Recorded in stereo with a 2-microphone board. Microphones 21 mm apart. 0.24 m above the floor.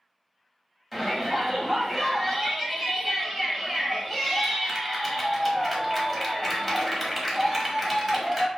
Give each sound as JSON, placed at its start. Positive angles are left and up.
{"t": 0.9, "sound": "a shout", "side_deg": 5, "distance_m": 1.0}